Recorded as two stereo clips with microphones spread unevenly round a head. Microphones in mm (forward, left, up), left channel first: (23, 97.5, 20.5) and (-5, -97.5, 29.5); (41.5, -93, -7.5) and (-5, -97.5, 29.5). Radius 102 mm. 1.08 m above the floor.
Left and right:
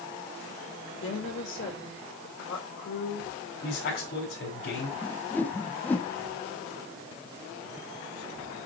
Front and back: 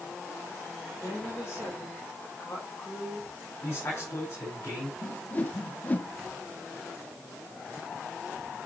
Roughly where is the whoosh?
Ahead.